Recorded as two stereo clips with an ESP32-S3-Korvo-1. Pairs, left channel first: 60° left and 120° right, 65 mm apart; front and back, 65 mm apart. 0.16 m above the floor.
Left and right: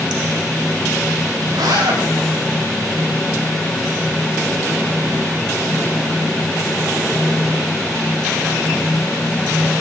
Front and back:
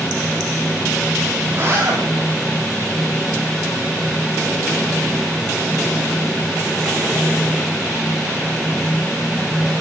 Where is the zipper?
130° right, 9 m.